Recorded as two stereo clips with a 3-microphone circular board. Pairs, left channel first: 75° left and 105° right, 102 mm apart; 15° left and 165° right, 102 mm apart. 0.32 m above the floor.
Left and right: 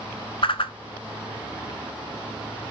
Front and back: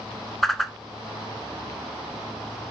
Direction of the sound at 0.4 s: 105° left.